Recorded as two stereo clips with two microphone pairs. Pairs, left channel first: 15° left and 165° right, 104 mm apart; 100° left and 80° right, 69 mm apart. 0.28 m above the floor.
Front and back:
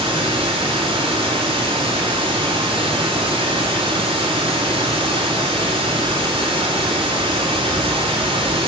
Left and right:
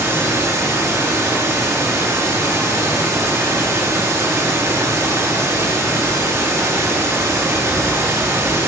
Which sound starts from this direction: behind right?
Running water, at 0.0 s.